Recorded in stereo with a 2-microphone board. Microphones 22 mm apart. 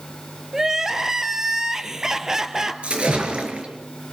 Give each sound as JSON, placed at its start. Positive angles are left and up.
{"t": 0.5, "sound": "crying", "side_deg": -25, "distance_m": 1.3}
{"t": 2.8, "sound": "a splash", "side_deg": -55, "distance_m": 4.0}